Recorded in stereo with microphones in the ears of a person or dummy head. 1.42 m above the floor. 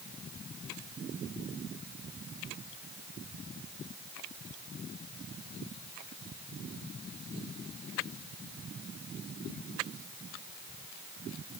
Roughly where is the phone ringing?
I don't hear a phone ringing.